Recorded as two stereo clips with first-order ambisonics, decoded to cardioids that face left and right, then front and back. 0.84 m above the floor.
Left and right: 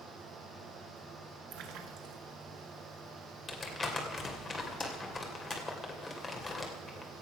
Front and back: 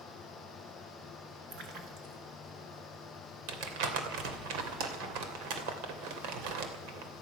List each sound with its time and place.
1.5 s a splash: 130° right, 2.5 m
3.5 s crumpling: 170° left, 2.5 m